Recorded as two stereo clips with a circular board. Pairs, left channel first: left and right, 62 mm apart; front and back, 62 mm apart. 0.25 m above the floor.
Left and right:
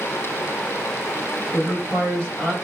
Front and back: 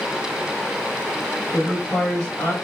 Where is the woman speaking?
135° left, 1.0 m; by 2.5 s 25° left, 1.2 m.